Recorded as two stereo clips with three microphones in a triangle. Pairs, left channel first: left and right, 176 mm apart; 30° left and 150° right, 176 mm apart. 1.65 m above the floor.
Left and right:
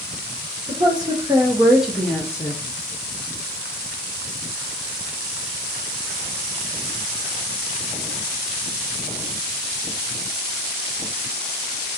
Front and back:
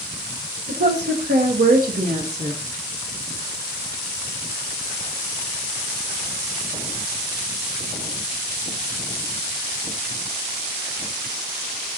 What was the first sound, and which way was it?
A woman speaking, 150° right.